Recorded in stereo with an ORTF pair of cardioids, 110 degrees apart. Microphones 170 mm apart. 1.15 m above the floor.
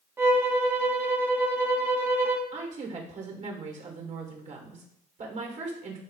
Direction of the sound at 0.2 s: 15° right.